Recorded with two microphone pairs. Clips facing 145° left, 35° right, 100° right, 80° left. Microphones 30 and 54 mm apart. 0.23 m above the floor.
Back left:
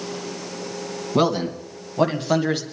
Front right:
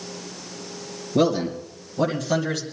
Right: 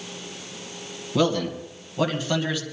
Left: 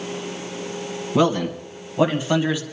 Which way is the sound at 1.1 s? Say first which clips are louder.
Even, left 3 dB; 135° left.